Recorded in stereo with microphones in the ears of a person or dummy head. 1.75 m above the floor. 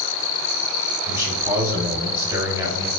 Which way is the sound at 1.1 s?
15° right (ahead or behind).